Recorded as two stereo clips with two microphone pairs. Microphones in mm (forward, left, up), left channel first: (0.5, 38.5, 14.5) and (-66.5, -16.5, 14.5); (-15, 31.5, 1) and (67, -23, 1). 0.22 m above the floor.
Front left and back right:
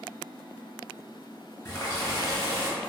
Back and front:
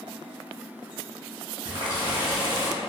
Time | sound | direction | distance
1.6 | a running tap | 5° right | 1.5 m